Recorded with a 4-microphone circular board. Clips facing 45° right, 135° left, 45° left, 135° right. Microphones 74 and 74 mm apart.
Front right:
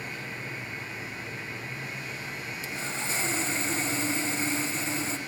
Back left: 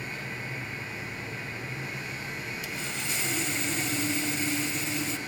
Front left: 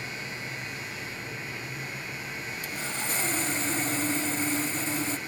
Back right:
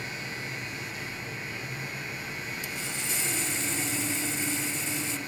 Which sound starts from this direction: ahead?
Sawing, at 2.6 s.